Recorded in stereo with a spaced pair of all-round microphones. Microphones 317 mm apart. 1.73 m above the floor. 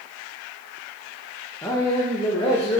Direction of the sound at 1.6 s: 10° left (ahead or behind).